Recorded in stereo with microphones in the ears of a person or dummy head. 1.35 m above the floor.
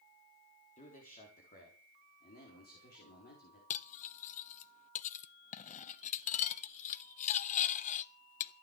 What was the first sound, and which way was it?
A man speaking, 40° left (ahead or behind).